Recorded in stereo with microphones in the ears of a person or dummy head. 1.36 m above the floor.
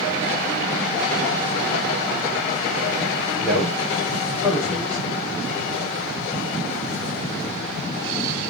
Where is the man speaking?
5° right (ahead or behind), 5 m.